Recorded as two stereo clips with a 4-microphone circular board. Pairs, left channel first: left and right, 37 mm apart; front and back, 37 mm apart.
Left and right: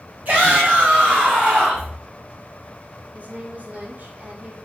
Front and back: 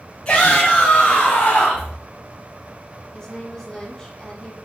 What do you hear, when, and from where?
0.2 s a shout: 55° right, 1.6 m; by 1.9 s 25° right, 2 m
3.1 s a woman speaking: 65° right, 1.3 m